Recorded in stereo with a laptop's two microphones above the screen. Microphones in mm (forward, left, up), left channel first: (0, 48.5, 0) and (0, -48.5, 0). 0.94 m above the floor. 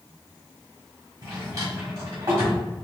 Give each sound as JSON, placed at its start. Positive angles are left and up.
{"t": 1.2, "sound": "a drawer", "side_deg": -40, "distance_m": 1.5}